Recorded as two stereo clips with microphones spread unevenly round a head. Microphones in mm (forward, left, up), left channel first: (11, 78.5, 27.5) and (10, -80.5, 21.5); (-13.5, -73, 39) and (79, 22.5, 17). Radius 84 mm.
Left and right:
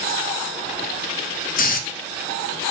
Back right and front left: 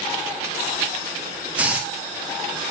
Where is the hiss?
130° left, 0.7 m.